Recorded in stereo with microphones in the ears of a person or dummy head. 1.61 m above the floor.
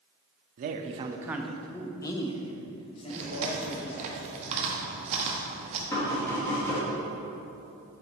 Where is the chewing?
35° right (ahead or behind), 1.0 m.